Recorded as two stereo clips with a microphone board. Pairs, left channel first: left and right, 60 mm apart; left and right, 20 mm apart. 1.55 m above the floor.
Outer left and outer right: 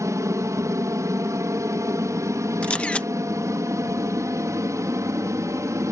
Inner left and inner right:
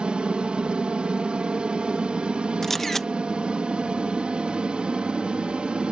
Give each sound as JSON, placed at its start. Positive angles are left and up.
{"t": 0.0, "sound": "an aircraft", "side_deg": -60}
{"t": 2.6, "sound": "a camera shutter", "side_deg": 20}